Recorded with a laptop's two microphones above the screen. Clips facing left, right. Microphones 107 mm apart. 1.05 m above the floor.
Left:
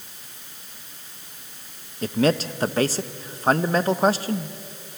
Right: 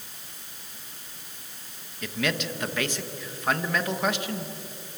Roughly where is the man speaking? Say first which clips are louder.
Left 8 dB; left.